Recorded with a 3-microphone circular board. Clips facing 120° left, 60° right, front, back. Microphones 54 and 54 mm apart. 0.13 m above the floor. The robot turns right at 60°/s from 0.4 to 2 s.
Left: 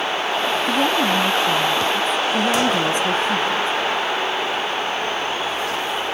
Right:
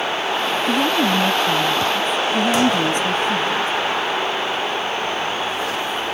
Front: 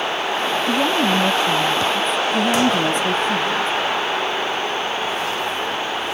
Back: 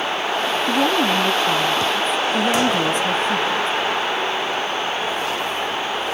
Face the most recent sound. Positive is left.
turn(degrees=100)